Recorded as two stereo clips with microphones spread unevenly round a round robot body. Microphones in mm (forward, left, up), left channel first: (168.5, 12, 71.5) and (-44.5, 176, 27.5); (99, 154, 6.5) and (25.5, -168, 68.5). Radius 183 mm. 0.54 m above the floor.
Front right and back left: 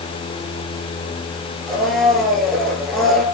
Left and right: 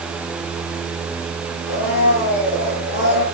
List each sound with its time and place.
1.7 s a blender: 50° left, 5.5 m